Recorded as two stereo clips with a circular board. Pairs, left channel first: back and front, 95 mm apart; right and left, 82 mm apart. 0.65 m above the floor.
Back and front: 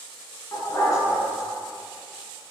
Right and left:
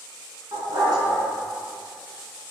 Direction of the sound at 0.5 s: 125° left.